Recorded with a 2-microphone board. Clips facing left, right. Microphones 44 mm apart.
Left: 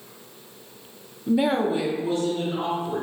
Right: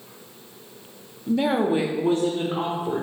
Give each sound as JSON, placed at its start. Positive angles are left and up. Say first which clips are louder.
{"t": 1.3, "sound": "a woman speaking", "louder": "even", "side_deg": 20, "distance_m": 0.8}